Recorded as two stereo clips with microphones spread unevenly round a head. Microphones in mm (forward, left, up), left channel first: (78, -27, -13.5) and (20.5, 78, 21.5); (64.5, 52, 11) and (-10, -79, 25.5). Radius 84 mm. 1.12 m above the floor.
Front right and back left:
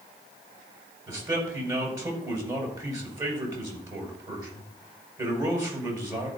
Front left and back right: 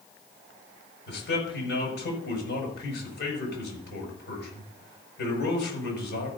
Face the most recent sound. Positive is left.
turn(degrees=60)